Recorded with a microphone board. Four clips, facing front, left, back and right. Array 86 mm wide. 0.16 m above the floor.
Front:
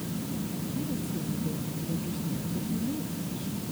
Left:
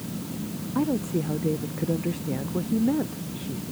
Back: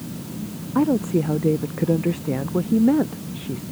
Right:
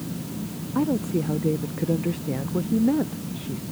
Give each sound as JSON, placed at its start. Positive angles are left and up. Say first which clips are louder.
{"t": 0.8, "sound": "a woman speaking", "louder": "right 2 dB, back 17 dB", "azimuth_deg": -175}